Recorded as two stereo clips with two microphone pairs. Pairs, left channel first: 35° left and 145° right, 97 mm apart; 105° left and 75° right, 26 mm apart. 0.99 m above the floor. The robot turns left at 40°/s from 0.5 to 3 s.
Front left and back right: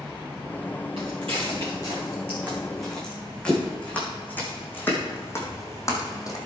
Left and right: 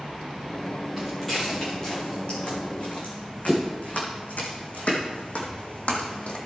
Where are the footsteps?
150° right, 5 m; by 6.4 s 85° left, 2.5 m.